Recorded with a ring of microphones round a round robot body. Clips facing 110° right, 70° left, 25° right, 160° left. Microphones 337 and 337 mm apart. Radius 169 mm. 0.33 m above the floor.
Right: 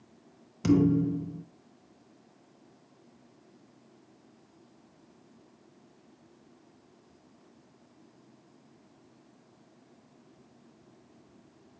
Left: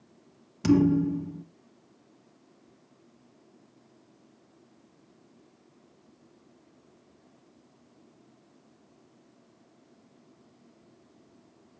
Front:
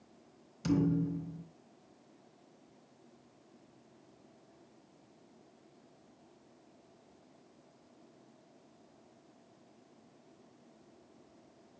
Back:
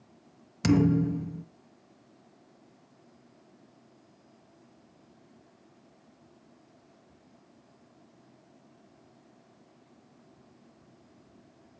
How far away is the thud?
About 0.7 m.